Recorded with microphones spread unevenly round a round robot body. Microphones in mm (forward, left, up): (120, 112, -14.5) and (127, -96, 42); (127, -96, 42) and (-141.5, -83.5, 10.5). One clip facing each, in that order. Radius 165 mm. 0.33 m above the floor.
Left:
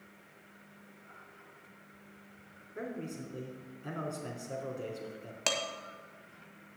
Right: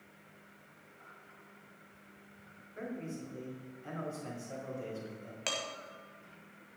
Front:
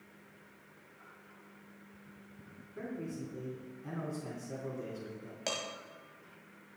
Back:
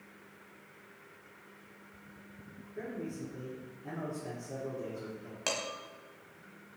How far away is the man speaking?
About 3.5 m.